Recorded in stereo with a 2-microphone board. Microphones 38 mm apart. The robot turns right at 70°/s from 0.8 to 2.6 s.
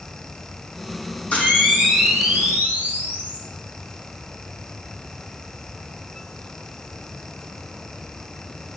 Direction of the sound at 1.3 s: 140° left.